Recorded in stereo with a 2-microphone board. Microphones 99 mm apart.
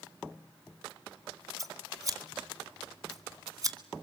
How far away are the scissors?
About 2 m.